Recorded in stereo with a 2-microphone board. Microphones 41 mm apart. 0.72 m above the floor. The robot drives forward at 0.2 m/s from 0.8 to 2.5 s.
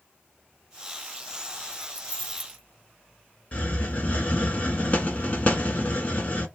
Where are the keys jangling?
40° right (ahead or behind), 1.1 m; by 2.6 s 35° right (ahead or behind), 1.2 m.